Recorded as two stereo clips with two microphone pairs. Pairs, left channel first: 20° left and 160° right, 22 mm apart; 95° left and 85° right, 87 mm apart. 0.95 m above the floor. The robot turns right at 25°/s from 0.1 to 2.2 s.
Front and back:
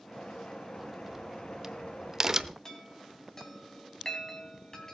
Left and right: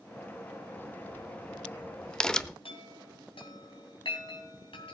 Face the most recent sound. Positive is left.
turn(degrees=85)